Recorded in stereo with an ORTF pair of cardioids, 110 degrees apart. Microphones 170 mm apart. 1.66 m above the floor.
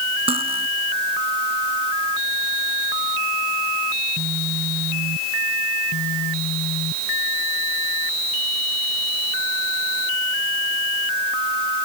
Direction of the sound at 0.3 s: 35° right.